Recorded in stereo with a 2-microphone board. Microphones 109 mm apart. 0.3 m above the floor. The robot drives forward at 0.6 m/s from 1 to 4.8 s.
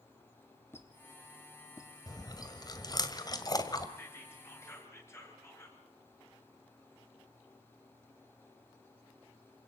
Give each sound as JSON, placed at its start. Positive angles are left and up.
{"t": 0.7, "sound": "a squeak", "side_deg": 20, "distance_m": 2.5}
{"t": 2.1, "sound": "chewing", "side_deg": 35, "distance_m": 1.9}
{"t": 4.0, "sound": "whispering", "side_deg": 20, "distance_m": 5.5}